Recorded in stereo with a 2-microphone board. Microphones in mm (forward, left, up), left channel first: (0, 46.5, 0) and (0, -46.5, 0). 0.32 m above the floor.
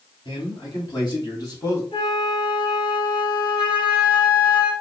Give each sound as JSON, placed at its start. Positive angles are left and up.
{"t": 0.2, "sound": "a man speaking", "side_deg": 50, "distance_m": 3.0}
{"t": 1.9, "sound": "a flute", "side_deg": 50, "distance_m": 2.5}